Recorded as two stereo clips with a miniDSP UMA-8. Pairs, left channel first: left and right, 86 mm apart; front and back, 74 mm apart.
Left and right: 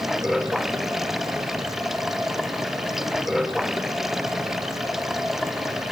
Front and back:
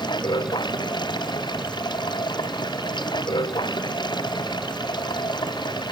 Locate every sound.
0.0 s running water: 5° right